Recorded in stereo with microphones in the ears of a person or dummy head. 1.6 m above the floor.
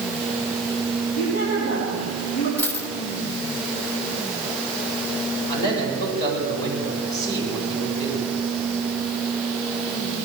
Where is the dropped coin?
10° left (ahead or behind), 1.8 m.